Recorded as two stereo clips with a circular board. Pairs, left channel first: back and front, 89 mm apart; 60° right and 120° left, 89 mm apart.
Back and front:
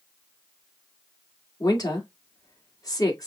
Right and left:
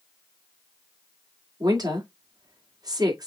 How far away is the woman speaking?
About 1.6 m.